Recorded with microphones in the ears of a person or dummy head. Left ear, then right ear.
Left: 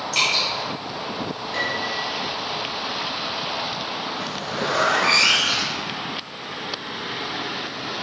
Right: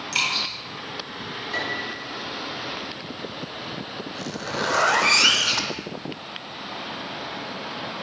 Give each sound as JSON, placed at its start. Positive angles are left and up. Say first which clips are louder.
{"t": 0.1, "sound": "dripping", "louder": "left 3 dB", "side_deg": -45, "distance_m": 2.0}
{"t": 1.5, "sound": "a piano", "louder": "left 4 dB", "side_deg": -55, "distance_m": 2.5}
{"t": 4.2, "sound": "a zipper", "louder": "left 2 dB", "side_deg": -80, "distance_m": 0.7}